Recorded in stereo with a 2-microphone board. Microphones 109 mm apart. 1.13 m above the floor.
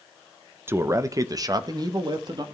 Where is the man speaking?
20° right (ahead or behind), 0.7 m; by 2.5 s 40° right (ahead or behind), 1.8 m.